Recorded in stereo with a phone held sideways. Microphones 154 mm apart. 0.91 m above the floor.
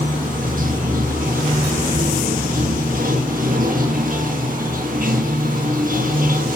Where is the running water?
65° right (ahead or behind), 1.3 m.